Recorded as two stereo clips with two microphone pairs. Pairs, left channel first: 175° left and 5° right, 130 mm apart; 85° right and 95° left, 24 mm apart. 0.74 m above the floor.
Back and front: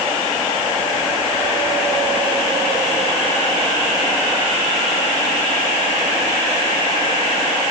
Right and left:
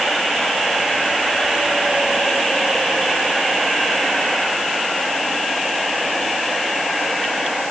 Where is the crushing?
I don't hear crushing.